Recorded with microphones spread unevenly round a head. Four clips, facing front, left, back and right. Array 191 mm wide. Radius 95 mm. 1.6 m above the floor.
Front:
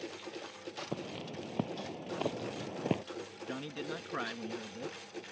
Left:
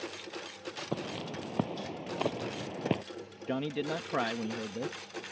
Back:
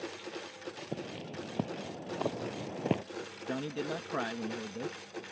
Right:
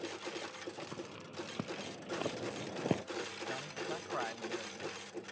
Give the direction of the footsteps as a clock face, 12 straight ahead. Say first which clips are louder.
Left 8 dB, even; 9 o'clock.